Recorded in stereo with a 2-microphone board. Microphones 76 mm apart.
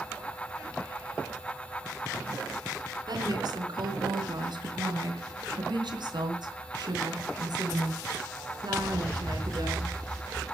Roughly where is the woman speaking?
Right.